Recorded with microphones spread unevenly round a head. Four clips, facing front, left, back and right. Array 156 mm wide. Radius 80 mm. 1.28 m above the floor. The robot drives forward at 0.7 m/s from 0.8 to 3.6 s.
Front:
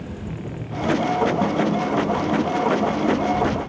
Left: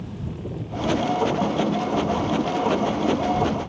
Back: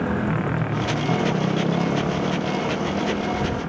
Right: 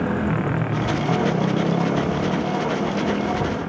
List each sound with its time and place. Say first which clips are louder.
0.0 s a motorcycle: right 12 dB, back 9 dB; 120° right